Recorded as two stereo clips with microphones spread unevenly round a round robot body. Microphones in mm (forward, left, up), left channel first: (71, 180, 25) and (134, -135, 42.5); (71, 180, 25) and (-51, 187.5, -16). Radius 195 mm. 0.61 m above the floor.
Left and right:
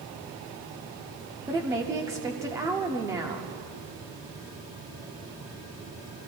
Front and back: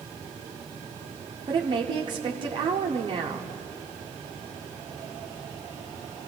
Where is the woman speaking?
160° right, 1.0 m.